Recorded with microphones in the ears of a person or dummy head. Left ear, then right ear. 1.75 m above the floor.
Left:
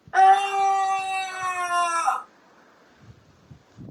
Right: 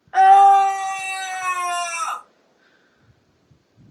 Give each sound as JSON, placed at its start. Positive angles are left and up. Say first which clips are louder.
{"t": 0.1, "sound": "a scream", "louder": "right 6 dB", "side_deg": -15, "distance_m": 0.7}